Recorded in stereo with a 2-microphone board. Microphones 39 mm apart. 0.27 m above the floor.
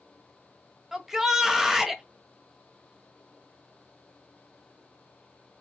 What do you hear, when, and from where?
0.9 s a shout: 10° right (ahead or behind), 1.2 m